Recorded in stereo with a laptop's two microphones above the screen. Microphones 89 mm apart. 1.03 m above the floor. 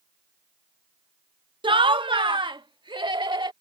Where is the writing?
No writing in this recording.